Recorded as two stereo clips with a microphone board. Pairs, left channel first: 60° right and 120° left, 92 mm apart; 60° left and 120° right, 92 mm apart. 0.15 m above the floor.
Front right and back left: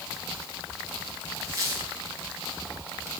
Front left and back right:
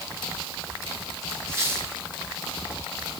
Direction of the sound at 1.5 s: 175° left.